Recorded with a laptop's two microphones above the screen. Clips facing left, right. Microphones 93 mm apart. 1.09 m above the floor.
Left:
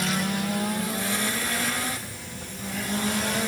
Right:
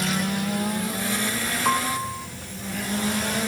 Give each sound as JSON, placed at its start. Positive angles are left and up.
{"t": 1.6, "sound": "a piano", "side_deg": -80}